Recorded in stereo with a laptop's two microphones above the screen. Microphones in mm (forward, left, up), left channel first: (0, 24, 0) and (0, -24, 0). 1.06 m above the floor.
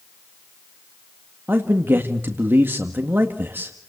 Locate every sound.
1.5 s a man speaking: 50° right (ahead or behind), 1.9 m